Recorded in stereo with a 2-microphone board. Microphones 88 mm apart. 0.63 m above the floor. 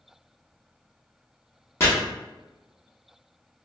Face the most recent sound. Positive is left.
turn(degrees=30)  # may be behind; listen again after turning